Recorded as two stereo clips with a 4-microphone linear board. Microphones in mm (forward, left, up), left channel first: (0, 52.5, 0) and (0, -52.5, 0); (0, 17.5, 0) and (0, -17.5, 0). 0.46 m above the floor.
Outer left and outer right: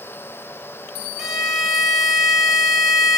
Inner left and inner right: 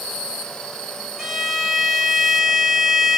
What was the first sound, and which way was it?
A violin, 5° right (ahead or behind).